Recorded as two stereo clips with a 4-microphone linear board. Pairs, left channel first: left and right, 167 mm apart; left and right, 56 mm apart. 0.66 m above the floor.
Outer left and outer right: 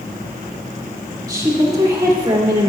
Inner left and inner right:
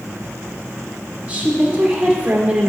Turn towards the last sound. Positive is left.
turn(degrees=-25)  # may be behind; listen again after turning